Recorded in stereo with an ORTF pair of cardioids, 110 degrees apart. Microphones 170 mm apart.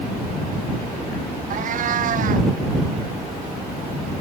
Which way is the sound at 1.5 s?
50° right.